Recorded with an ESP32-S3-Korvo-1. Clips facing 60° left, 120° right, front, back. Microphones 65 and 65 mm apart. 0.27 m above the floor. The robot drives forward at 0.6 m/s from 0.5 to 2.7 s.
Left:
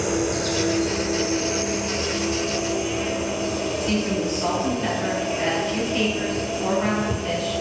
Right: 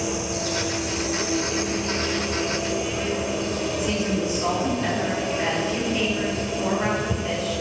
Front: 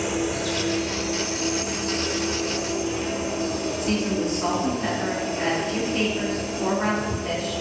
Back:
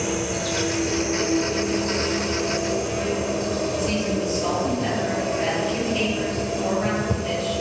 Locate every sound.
0.0 s an insect: 90° left, 0.8 m; by 7.6 s 150° left, 1.5 m
3.8 s a woman speaking: 45° right, 3.5 m